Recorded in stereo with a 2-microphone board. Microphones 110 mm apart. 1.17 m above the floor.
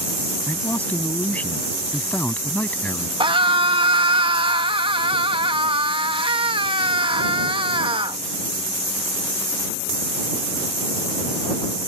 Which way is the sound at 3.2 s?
50° right (ahead or behind).